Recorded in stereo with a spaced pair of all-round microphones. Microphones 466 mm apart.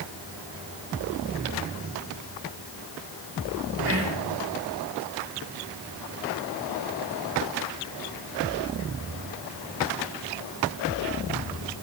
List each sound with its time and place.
3.9 s whispering: 30° right (ahead or behind), 1.7 m